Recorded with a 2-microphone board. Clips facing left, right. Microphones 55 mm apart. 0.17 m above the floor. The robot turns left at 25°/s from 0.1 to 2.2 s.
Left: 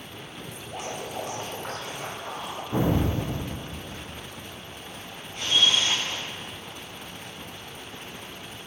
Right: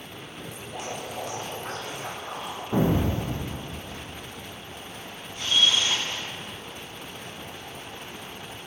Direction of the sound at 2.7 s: 20° right (ahead or behind).